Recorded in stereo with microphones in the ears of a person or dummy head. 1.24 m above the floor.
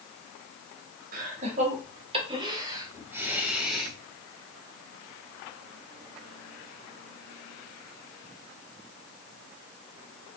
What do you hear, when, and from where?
1.1 s laughter: 55° right (ahead or behind), 2.5 m; by 3.9 s 5° right (ahead or behind), 2.5 m